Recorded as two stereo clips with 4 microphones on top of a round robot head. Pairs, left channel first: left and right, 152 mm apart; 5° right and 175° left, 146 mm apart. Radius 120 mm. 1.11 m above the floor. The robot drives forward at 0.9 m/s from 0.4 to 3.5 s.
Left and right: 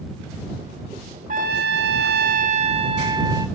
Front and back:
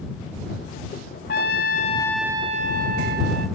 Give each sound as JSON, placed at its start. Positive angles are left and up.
{"t": 1.3, "sound": "a trumpet", "azimuth_deg": -35, "distance_m": 1.0}